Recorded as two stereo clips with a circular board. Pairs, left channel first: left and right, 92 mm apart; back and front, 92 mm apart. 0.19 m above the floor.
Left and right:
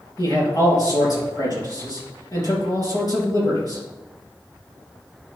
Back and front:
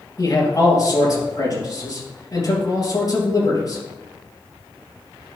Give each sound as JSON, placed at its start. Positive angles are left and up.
{"t": 0.2, "sound": "a man speaking", "azimuth_deg": 135, "distance_m": 3.5}